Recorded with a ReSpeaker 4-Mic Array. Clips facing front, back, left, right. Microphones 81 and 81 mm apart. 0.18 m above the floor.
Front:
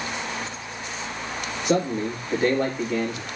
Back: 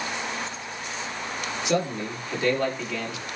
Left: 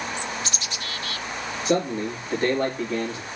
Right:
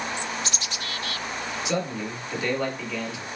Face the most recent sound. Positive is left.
turn(degrees=45)